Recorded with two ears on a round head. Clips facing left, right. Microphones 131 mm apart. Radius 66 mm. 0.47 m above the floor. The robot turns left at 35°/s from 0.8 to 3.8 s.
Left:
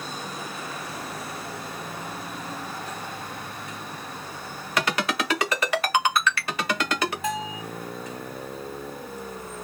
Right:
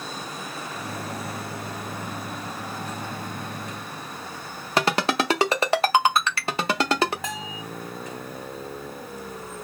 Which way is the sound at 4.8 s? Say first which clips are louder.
Right 4 dB; 25° right (ahead or behind).